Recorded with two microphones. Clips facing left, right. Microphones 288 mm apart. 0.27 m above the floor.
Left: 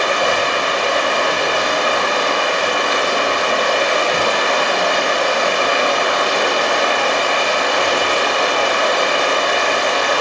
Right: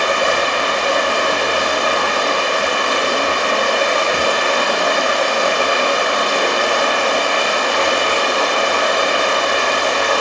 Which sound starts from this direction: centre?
Running water, at 0.0 s.